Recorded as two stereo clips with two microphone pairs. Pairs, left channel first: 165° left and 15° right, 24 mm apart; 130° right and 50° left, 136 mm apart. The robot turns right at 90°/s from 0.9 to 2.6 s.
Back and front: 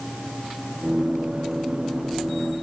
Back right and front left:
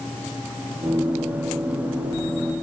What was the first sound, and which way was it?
Only background noise.